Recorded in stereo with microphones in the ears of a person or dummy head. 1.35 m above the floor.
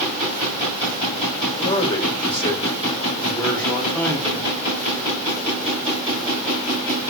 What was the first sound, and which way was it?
A man speaking, 20° left (ahead or behind).